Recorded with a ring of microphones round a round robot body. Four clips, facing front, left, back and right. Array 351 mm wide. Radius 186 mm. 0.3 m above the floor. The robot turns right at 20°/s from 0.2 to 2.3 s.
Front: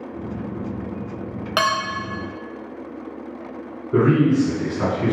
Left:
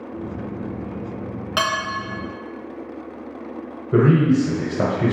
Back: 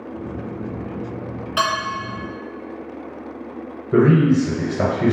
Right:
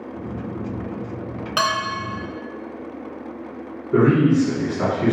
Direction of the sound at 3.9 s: 140° left.